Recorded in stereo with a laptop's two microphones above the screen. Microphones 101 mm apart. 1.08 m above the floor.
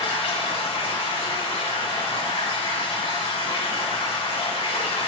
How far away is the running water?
About 3.5 m.